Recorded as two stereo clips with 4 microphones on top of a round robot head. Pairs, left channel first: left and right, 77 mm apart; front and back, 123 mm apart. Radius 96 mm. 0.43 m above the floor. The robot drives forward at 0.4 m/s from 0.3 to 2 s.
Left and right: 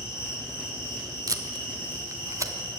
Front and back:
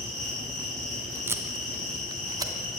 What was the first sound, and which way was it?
An insect, 30° right.